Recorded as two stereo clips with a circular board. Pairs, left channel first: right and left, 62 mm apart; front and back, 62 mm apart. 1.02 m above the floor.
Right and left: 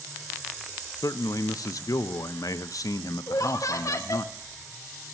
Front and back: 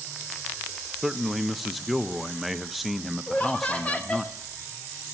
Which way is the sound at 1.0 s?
90° right.